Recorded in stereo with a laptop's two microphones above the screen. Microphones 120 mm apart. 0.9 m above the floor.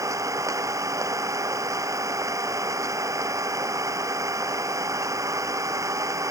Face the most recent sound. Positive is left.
turn(degrees=-25)  # may be behind; listen again after turning